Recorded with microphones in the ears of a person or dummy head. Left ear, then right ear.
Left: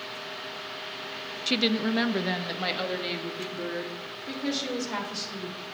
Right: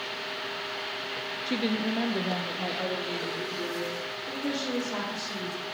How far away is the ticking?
I don't hear ticking.